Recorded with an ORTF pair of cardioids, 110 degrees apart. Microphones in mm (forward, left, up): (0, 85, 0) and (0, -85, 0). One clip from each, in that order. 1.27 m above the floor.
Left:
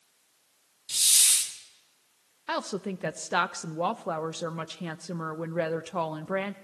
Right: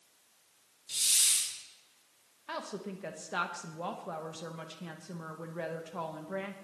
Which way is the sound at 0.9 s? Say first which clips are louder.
Left 5 dB; 40° left.